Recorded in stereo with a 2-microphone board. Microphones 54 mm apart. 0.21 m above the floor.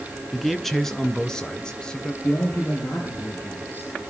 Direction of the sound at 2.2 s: 35° left (ahead or behind).